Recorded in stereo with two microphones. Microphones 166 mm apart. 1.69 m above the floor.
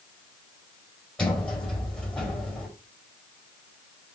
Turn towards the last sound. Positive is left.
turn(degrees=5)  # may be behind; listen again after turning